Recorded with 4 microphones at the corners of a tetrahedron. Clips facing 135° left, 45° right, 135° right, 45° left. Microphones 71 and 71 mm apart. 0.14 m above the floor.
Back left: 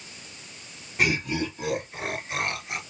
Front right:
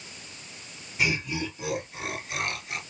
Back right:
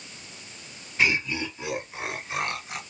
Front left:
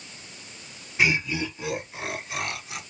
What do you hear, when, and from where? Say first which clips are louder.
1.0 s laughter: back left 3 dB, front left 1 dB; 130° left, 2.0 m; by 2.8 s 170° right, 1.9 m